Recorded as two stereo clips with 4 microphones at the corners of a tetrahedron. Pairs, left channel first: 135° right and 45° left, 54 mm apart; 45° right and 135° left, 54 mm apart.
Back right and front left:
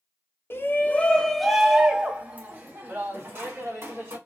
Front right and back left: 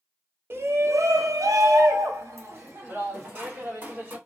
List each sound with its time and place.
0.5 s a shout: straight behind, 0.8 m; by 4.2 s 85° left, 1.9 m